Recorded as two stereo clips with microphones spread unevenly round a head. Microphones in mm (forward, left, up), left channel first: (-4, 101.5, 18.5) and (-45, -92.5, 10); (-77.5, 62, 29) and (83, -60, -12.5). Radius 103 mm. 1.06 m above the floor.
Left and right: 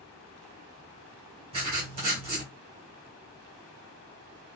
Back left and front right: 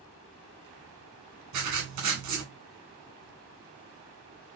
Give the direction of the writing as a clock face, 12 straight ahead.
1 o'clock.